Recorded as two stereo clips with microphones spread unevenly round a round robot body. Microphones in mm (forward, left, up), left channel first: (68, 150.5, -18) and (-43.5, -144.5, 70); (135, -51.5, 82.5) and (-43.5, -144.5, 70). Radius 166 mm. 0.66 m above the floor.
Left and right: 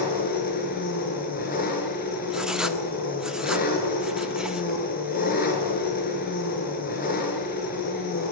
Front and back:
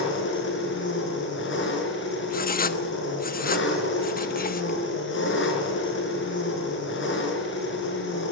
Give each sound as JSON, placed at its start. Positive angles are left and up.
{"t": 0.0, "sound": "an engine running", "azimuth_deg": 5, "distance_m": 4.5}
{"t": 2.3, "sound": "writing", "azimuth_deg": -10, "distance_m": 1.1}